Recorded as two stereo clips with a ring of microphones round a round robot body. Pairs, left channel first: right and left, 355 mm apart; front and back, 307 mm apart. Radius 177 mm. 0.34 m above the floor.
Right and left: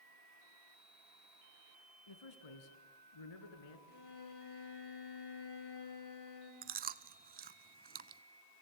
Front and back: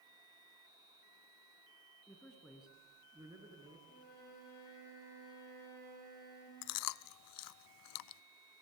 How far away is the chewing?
About 0.6 m.